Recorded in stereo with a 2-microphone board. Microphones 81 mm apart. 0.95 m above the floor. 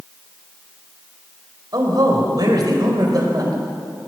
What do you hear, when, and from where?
1.7 s a man speaking: 55° right (ahead or behind), 4.5 m